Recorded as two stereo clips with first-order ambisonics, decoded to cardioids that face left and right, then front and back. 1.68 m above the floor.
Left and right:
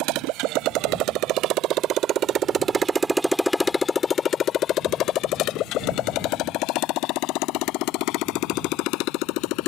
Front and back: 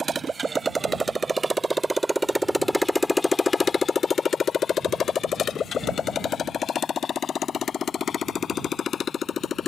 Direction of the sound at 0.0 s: 110° right.